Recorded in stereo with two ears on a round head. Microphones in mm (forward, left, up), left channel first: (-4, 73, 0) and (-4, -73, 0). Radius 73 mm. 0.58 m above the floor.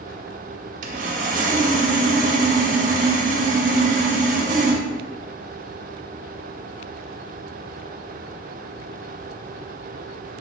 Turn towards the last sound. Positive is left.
turn(degrees=-50)  # may be behind; listen again after turning